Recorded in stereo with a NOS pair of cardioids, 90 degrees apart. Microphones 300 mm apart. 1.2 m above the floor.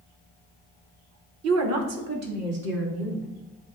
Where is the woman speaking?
55° right, 0.7 m; by 3.3 s 60° right, 3.5 m.